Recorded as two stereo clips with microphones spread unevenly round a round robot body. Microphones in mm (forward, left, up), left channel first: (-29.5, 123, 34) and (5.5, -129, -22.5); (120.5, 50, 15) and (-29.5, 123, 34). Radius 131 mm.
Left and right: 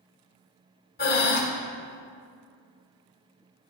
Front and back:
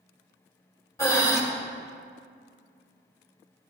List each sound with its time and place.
1.0 s breathing: 40° left, 1.2 m